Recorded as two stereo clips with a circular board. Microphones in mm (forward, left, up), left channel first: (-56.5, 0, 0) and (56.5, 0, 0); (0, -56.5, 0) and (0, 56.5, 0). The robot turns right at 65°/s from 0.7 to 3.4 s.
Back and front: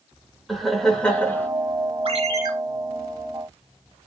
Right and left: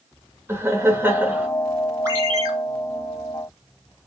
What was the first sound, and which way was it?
Laughter, 90° left.